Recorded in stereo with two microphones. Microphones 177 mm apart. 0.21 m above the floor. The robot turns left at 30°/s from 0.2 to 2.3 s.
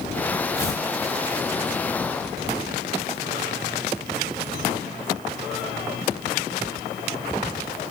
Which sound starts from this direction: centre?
Tearing paper, at 0.6 s.